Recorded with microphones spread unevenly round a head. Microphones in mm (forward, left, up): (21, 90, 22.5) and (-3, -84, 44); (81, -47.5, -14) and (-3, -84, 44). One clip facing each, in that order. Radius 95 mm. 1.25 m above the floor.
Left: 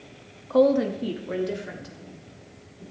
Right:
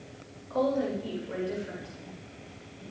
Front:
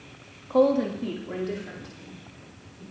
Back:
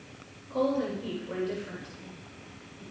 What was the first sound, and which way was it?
A woman speaking, 55° left.